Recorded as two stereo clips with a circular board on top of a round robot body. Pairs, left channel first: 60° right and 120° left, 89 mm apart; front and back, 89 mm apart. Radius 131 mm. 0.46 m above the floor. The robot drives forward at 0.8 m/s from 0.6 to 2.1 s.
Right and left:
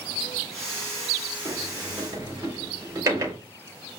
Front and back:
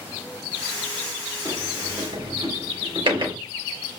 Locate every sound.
1.4 s a sliding door: 165° left, 2.5 m; by 3.4 s 170° left, 3 m